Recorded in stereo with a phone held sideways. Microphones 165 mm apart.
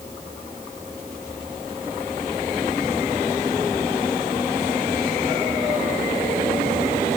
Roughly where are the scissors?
I don't hear scissors.